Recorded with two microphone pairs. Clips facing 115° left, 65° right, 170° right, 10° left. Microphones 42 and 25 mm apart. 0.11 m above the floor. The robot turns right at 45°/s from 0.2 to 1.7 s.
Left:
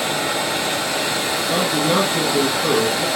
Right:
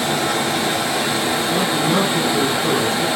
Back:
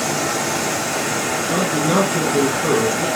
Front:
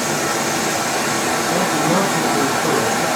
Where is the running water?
75° right, 3 m; by 3.2 s 10° right, 3 m.